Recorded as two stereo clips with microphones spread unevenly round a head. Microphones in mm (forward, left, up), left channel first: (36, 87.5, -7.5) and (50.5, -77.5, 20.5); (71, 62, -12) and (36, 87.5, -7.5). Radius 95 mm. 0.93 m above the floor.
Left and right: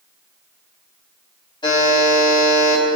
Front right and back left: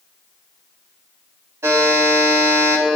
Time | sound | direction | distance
1.6 | a buzzer | 165° left | 5 m